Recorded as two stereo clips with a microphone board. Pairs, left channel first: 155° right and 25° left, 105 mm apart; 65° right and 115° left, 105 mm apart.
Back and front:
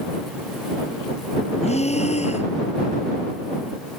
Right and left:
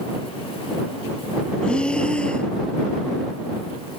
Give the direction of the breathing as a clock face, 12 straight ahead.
5 o'clock.